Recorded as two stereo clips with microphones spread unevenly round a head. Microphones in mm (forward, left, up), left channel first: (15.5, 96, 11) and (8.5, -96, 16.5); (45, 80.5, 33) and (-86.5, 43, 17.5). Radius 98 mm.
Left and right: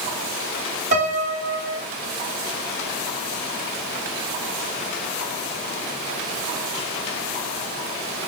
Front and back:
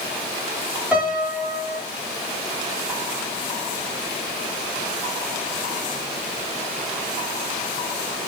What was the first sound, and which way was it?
A piano, 75° right.